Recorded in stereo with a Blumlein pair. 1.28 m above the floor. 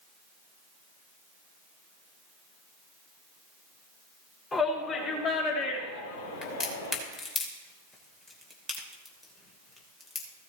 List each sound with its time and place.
4.5 s a shout: 20° left, 4 m; by 7.0 s 70° left, 3 m
6.4 s a crack: 15° left, 2.5 m